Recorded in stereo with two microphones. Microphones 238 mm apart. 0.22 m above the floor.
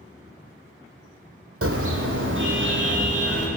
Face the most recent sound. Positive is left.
turn(degrees=-45)  # may be behind; listen again after turning